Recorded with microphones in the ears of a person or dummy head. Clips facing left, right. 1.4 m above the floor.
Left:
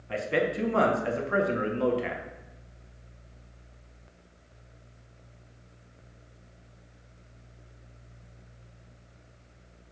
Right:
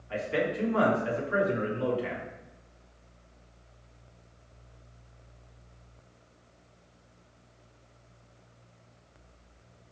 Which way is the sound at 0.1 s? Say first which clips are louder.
Left 2 dB; 60° left (ahead or behind).